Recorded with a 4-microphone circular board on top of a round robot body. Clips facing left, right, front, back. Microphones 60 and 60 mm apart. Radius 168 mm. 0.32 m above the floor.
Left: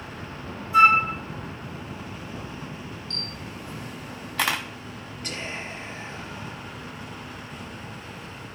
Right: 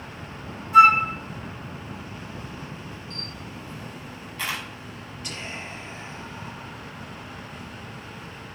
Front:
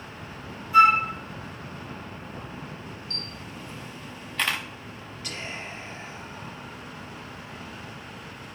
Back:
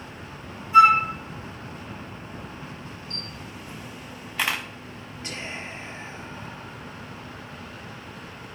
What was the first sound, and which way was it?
A flute, 115° right.